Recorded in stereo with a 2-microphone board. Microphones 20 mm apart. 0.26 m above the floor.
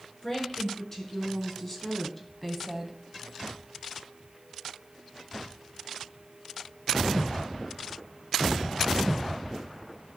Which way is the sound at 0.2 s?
20° left (ahead or behind).